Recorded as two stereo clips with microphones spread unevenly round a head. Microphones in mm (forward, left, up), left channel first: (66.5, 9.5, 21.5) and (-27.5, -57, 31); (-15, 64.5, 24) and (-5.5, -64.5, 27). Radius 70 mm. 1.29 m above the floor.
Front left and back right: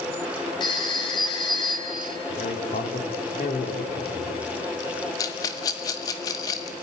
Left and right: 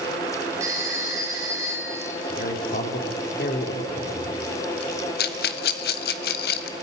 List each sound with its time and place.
0.6 s a phone ringing: 15° right, 4 m
2.3 s a man speaking: 70° left, 3.5 m
5.2 s a rattle: 100° left, 1.2 m